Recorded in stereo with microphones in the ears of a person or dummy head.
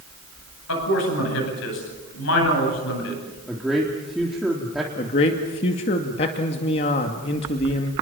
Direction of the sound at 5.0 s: 40° left (ahead or behind).